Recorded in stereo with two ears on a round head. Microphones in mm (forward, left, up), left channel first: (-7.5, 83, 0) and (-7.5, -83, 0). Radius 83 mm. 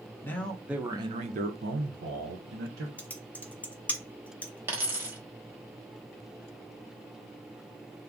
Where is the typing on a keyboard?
10° left (ahead or behind), 0.6 m.